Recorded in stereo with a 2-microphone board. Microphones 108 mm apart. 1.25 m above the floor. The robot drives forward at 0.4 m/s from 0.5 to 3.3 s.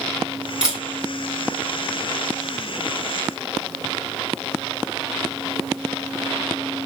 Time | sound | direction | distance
0.6 | a camera shutter | 10° right (ahead or behind) | 1.8 m